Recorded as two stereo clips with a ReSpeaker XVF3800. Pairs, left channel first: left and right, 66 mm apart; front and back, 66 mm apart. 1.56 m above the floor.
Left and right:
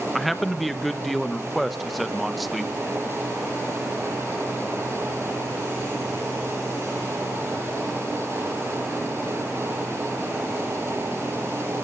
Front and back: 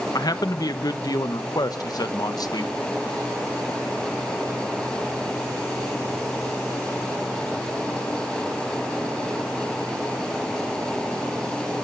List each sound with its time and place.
0.1 s a man speaking: straight ahead, 1.1 m